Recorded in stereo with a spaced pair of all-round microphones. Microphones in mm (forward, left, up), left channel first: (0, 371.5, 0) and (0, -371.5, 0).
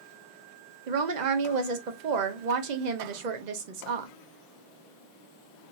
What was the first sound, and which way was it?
A woman speaking, 70° right (ahead or behind).